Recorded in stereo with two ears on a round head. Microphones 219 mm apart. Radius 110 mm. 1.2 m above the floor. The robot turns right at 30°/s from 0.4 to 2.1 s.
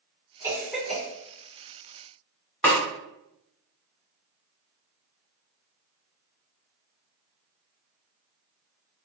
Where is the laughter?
I don't hear laughter.